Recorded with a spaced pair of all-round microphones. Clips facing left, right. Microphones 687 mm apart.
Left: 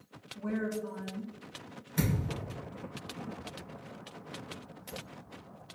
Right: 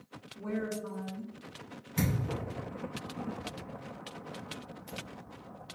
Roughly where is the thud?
Right.